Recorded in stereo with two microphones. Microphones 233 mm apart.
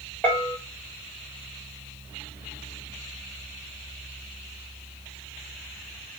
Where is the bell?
10° left (ahead or behind), 1.3 m.